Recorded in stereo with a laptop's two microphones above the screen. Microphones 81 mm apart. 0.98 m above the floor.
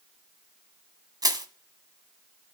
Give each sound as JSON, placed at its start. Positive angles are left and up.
{"t": 1.2, "sound": "crushing", "side_deg": -50, "distance_m": 1.5}